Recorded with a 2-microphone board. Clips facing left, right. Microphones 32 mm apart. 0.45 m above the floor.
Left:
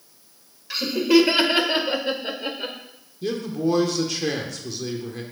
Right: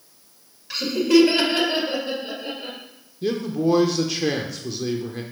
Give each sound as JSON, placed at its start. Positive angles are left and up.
{"t": 0.7, "sound": "laughter", "side_deg": 5, "distance_m": 1.7}
{"t": 3.2, "sound": "a man speaking", "side_deg": -10, "distance_m": 0.8}